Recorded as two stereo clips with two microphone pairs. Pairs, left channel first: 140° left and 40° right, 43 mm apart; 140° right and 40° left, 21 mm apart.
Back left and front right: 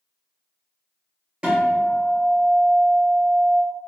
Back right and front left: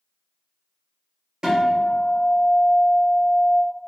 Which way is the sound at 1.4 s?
5° left.